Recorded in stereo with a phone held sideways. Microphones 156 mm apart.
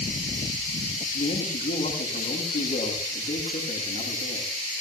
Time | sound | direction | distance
1.1 | a man speaking | 70° left (ahead or behind) | 9.5 m